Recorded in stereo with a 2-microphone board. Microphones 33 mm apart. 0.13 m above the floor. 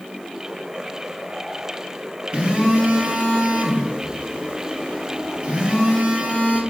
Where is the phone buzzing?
35° right (ahead or behind), 0.8 m.